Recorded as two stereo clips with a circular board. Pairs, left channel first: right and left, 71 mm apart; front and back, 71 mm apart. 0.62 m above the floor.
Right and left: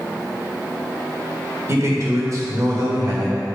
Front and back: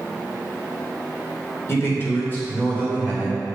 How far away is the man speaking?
About 2 m.